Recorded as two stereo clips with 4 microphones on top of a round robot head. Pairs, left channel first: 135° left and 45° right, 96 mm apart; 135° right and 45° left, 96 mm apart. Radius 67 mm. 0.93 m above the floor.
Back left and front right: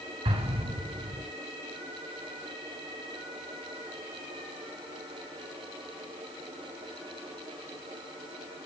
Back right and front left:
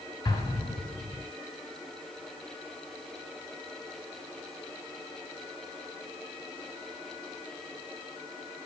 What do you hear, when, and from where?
0.2 s an explosion: 75° right, 8 m